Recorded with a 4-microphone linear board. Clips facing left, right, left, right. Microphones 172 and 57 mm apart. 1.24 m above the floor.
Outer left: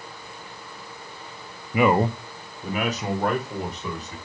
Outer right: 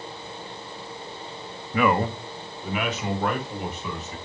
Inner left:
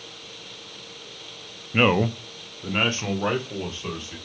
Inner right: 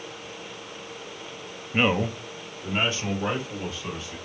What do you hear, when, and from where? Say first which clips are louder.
1.7 s a man speaking: outer left 3 dB, inner left 3 dB; 15° left (ahead or behind), 0.5 m; by 4.2 s 35° left (ahead or behind), 2.5 m